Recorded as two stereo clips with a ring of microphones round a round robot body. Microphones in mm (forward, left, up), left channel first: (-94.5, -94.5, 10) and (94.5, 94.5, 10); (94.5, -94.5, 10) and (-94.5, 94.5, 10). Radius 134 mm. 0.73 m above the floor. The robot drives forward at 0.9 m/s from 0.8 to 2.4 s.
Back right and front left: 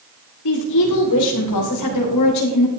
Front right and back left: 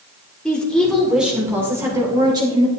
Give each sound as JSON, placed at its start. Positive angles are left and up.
{"t": 0.5, "sound": "a woman speaking", "azimuth_deg": -130, "distance_m": 2.0}